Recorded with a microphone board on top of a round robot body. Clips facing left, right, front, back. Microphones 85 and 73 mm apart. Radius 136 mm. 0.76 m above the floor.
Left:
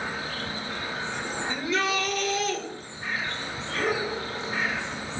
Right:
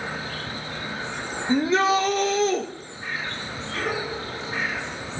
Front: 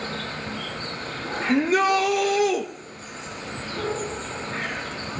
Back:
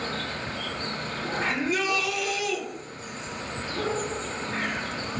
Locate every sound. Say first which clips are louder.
1.5 s a shout: right 9 dB, front 10 dB; 35° right, 1.1 m